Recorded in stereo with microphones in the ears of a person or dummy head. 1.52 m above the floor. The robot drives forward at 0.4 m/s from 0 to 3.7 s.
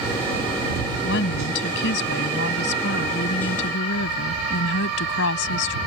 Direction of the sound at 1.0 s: 60° left (ahead or behind).